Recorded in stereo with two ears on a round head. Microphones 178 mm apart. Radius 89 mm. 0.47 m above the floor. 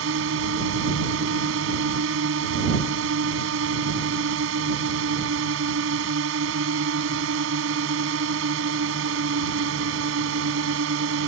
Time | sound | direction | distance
0.0 | a drone | 70° right (ahead or behind) | ?